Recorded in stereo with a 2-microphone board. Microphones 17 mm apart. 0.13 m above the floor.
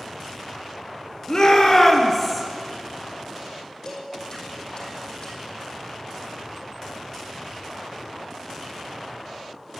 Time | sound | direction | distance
1.3 | a shout | 40° left (ahead or behind) | 2.5 m
3.9 | dishes clattering | 40° left (ahead or behind) | 3.5 m